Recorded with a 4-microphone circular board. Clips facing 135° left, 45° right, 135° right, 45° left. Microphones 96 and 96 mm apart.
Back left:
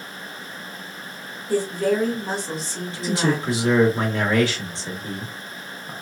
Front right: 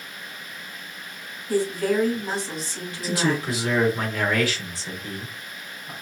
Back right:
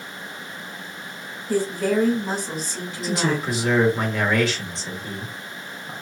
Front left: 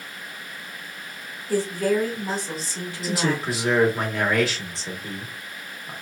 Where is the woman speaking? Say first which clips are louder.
Back left 1 dB, back right 1 dB; 165° left, 1.6 m.